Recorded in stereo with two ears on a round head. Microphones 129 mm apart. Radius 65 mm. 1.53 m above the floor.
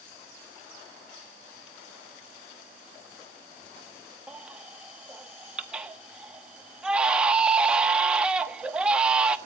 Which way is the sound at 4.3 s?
5° right (ahead or behind).